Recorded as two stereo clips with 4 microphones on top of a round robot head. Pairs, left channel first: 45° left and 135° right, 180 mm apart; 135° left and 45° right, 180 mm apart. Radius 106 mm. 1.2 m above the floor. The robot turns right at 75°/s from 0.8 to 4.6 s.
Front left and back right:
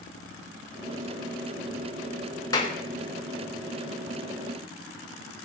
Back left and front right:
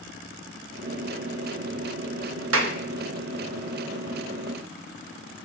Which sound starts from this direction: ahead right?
A clap, at 2.5 s.